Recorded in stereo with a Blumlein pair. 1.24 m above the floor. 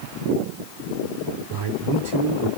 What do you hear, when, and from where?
1.5 s a man speaking: 60° right, 2.5 m